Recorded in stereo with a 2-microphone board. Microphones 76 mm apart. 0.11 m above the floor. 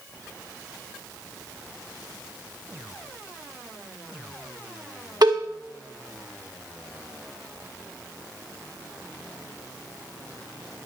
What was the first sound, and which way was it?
A cowbell, 65° right (ahead or behind).